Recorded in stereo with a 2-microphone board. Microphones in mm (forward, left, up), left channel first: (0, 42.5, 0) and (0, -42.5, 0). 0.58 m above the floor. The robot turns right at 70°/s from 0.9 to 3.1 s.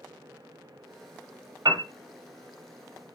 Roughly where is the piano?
Right.